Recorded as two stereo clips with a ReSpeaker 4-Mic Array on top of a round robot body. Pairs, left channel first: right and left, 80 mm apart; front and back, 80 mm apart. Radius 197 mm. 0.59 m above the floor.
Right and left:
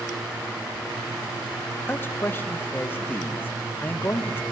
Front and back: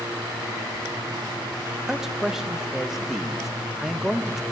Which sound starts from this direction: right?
A man speaking, at 1.9 s.